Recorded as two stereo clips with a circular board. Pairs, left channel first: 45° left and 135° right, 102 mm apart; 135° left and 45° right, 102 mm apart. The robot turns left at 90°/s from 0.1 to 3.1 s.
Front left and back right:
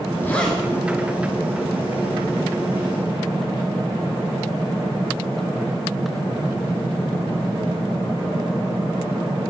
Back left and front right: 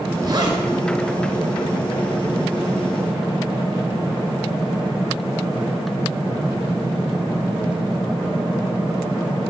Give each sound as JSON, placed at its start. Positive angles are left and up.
{"t": 0.2, "sound": "a zipper", "azimuth_deg": -15, "distance_m": 1.0}